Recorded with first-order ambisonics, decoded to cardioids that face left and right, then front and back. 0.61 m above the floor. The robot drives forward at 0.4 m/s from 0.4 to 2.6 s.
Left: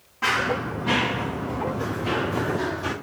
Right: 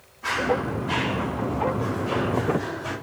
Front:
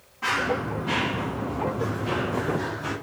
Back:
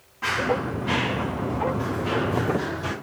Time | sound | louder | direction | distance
0.2 | running footsteps | left 1 dB, back 1 dB | 100° left | 4 m